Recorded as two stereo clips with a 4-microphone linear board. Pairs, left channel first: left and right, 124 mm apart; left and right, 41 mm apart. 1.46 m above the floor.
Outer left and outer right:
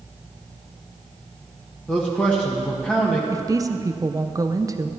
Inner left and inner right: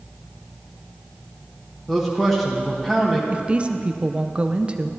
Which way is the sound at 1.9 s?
10° left (ahead or behind).